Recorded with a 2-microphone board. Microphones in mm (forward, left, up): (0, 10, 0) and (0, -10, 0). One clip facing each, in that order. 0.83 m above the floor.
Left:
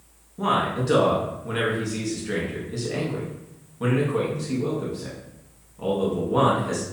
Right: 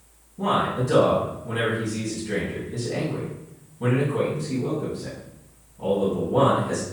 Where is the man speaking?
50° left (ahead or behind), 1.1 m.